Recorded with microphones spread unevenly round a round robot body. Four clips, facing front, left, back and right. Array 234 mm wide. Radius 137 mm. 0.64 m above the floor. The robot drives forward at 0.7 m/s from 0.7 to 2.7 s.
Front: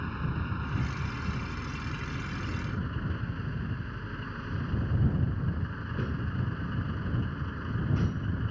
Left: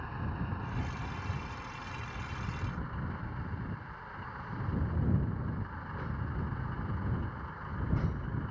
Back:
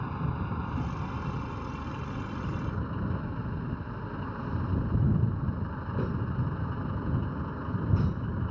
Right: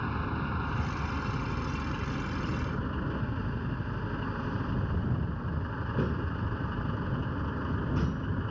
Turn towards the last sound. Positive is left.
turn(degrees=-125)